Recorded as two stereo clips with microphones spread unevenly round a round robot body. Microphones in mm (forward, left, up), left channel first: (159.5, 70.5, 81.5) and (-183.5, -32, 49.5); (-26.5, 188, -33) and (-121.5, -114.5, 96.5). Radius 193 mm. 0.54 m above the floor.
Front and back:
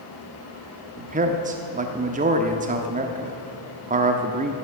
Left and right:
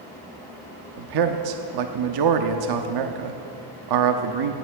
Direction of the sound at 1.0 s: 105° right.